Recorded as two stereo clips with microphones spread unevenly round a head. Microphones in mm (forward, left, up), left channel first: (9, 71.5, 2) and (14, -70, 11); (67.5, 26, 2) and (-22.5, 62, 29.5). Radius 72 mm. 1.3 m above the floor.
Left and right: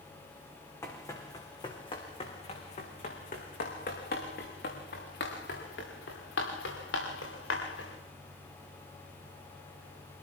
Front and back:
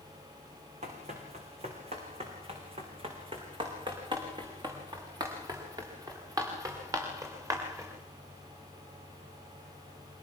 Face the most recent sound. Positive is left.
turn(degrees=100)